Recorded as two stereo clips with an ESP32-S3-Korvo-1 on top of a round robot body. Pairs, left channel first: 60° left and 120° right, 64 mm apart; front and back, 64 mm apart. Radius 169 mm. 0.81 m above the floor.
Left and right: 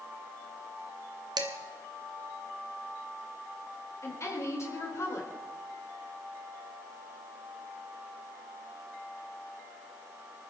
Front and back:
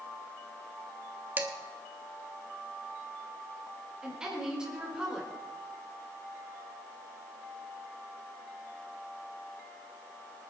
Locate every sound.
1.4 s dishes clattering: 120° right, 1.3 m
4.0 s a woman speaking: 100° left, 3.5 m